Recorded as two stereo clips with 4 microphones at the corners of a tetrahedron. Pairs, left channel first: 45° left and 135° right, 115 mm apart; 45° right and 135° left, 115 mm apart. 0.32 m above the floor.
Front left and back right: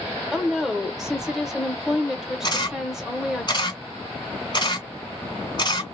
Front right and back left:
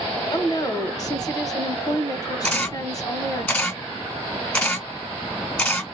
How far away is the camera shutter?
About 1.9 m.